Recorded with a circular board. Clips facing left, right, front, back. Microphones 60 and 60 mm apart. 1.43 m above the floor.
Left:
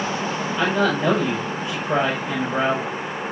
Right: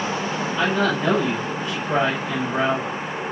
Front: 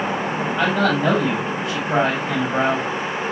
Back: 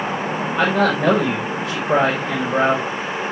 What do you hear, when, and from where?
0.6 s a man speaking: 170° left, 5.5 m